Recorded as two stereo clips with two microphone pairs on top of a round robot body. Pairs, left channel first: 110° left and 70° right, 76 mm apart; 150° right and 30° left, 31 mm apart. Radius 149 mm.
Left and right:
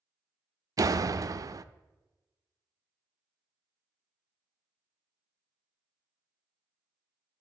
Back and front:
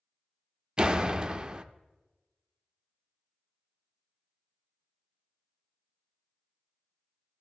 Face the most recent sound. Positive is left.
turn(degrees=-45)